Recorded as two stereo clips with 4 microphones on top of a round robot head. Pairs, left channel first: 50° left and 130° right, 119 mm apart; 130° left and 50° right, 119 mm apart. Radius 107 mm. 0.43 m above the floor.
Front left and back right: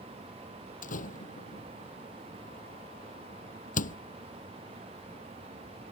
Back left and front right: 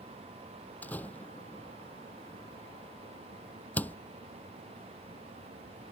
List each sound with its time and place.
0.8 s a door slam: 55° left